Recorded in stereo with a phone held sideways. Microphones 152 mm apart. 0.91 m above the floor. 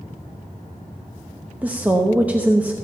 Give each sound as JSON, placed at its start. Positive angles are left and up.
{"t": 1.6, "sound": "a woman speaking", "side_deg": -10, "distance_m": 0.8}